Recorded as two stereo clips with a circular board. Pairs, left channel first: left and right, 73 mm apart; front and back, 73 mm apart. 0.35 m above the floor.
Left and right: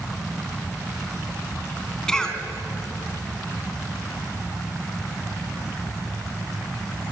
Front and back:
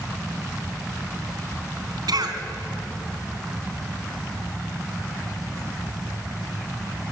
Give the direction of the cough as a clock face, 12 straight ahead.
6 o'clock.